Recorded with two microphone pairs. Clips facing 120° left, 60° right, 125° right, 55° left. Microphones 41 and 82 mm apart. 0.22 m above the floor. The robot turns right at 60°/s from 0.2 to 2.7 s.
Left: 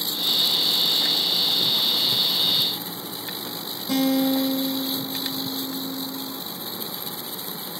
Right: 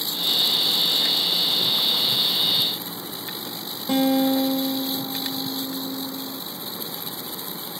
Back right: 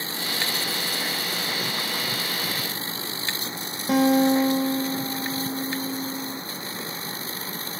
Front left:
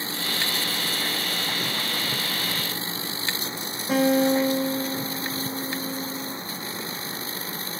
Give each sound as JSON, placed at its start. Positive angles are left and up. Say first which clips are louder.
{"t": 3.9, "sound": "a guitar", "louder": "right 1 dB, back right 1 dB", "azimuth_deg": -105, "distance_m": 1.5}